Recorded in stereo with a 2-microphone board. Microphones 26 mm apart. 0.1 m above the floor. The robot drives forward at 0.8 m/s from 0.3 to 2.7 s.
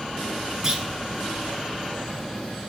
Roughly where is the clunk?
Right.